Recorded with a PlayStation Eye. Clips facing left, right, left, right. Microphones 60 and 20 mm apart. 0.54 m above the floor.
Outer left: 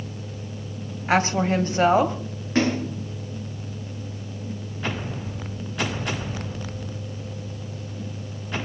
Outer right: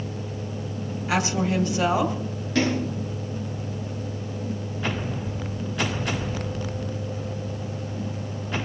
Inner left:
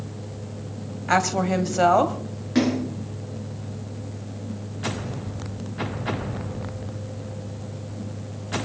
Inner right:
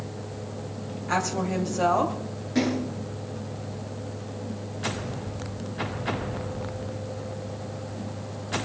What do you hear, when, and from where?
1.1 s a woman speaking: 40° left (ahead or behind), 2.5 m
2.5 s a splash: 30° left (ahead or behind), 8.5 m